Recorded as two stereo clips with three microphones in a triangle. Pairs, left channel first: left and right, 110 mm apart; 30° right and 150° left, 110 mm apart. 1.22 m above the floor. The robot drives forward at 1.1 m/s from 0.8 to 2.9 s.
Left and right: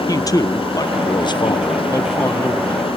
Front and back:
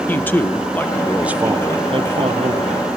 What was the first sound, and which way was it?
A man speaking, 40° left.